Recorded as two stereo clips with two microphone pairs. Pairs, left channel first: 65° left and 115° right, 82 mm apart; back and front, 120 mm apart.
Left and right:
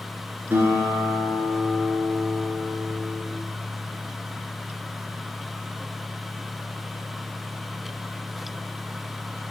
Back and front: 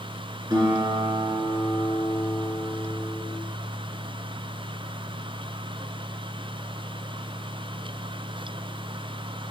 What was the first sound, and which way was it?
A guitar, 50° right.